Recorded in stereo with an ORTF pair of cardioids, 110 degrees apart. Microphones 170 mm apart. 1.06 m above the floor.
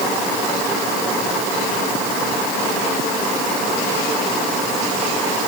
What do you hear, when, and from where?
Only background noise.